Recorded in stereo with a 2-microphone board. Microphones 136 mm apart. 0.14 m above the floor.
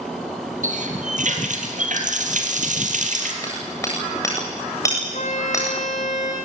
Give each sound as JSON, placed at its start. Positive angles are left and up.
{"t": 0.6, "sound": "a running tap", "side_deg": -65, "distance_m": 2.5}
{"t": 3.4, "sound": "hammering", "side_deg": 20, "distance_m": 8.0}
{"t": 5.1, "sound": "a violin", "side_deg": 60, "distance_m": 2.5}